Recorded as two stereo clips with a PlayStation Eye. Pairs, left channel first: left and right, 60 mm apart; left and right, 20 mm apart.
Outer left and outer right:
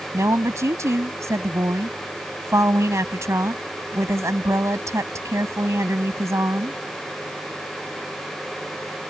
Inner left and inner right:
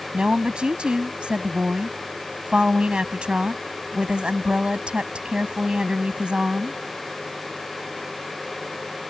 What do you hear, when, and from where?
0.1 s a woman speaking: 60° right (ahead or behind)